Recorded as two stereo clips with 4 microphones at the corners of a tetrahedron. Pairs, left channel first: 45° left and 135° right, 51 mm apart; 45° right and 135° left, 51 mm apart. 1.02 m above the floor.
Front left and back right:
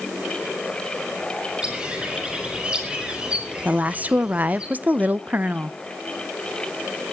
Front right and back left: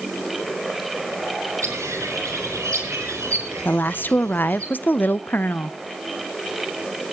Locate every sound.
1.6 s a bird: 155° left, 7.5 m
3.6 s a woman speaking: 85° right, 0.7 m